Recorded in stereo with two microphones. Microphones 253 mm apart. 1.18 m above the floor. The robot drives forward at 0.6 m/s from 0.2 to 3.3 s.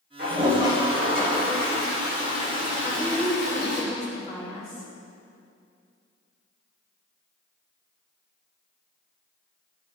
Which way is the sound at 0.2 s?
45° right (ahead or behind).